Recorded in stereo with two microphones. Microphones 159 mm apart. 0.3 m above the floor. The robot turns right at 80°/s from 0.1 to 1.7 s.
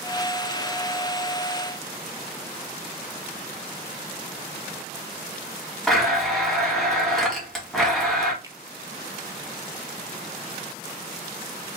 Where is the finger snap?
20° right (ahead or behind), 0.7 m.